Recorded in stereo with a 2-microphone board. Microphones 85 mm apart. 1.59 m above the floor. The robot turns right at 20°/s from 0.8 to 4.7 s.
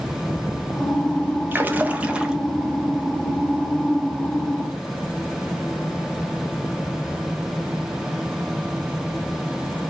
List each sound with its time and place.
1.5 s a splash: 25° right (ahead or behind), 0.6 m; by 2.4 s 10° right (ahead or behind), 0.6 m